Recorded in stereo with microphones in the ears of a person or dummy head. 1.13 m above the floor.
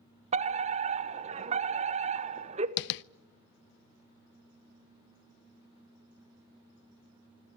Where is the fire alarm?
30° right (ahead or behind), 1.2 m.